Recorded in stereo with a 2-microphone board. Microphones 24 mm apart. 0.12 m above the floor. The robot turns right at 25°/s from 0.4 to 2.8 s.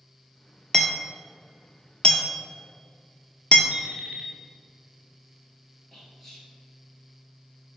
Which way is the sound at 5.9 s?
15° left (ahead or behind).